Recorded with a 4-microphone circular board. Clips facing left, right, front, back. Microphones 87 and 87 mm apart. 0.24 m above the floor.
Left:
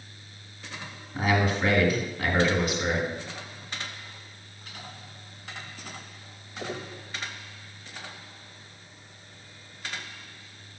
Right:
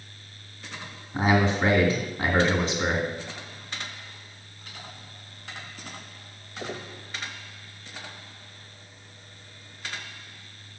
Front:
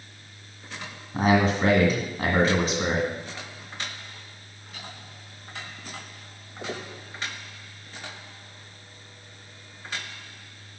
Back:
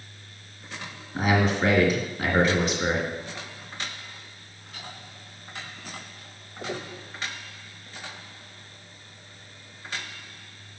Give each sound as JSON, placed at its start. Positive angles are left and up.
{"t": 1.1, "sound": "a man speaking", "azimuth_deg": -35, "distance_m": 2.0}